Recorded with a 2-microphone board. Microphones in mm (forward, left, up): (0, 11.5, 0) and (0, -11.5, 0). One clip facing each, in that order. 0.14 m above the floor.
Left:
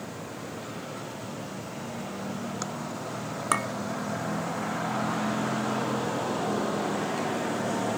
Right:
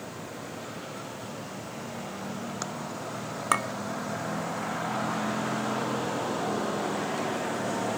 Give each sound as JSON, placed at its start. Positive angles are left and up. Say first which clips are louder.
{"t": 3.5, "sound": "a clink", "louder": "right 1 dB", "side_deg": -5, "distance_m": 0.8}